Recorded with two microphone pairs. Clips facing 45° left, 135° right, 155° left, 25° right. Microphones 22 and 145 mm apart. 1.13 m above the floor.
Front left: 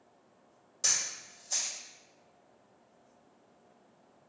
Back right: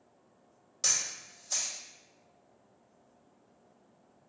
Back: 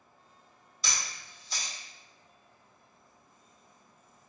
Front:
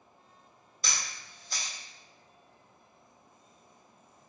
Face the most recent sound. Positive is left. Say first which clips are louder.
# even, even
turn(degrees=-70)